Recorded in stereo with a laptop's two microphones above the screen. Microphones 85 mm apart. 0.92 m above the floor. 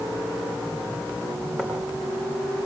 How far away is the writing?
About 4 m.